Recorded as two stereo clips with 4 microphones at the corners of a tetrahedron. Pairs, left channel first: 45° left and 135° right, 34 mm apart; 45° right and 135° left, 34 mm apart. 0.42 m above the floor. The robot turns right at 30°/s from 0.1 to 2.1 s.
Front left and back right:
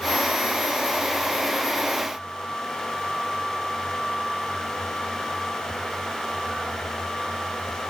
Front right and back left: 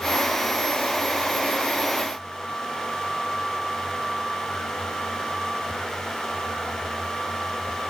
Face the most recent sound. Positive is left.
No sound to turn to.